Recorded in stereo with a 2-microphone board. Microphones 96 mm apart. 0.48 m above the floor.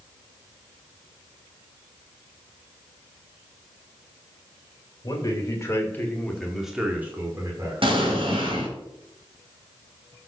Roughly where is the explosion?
Right.